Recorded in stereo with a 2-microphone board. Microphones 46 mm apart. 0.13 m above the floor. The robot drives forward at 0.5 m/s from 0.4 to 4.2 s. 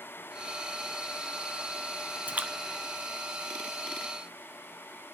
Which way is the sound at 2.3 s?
35° right (ahead or behind).